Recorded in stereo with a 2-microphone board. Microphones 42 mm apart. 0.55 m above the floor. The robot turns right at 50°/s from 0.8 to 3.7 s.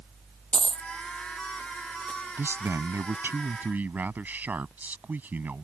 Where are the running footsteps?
I don't hear running footsteps.